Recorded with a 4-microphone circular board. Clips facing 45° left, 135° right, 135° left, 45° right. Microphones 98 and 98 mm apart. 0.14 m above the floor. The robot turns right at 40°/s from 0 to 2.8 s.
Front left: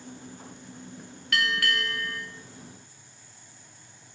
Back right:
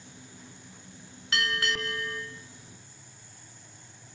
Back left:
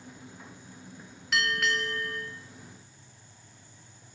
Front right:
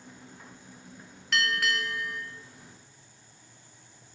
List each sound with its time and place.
1.3 s a bell: 145° right, 0.8 m; by 2.2 s 105° right, 0.8 m